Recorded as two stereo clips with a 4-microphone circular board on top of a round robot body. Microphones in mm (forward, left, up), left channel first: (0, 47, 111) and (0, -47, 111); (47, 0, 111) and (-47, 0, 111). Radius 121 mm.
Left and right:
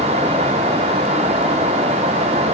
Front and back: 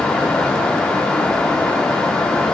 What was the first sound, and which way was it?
Only background noise.